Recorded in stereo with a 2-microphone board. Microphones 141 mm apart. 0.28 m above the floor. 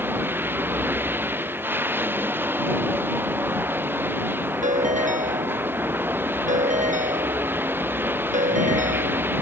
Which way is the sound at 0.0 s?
15° right (ahead or behind).